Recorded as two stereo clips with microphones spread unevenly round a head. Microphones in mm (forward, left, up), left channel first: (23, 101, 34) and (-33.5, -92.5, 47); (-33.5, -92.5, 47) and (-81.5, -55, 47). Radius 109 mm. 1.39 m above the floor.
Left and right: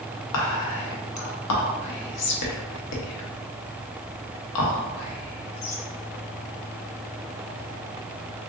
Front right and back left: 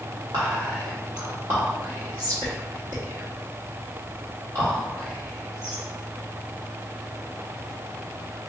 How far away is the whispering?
About 0.7 m.